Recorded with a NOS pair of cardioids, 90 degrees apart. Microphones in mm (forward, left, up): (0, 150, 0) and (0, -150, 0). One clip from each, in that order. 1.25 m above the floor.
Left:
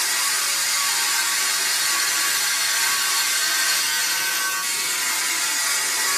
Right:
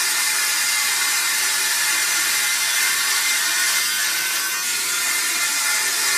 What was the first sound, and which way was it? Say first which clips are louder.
A machine running: right 2 dB; 10° right.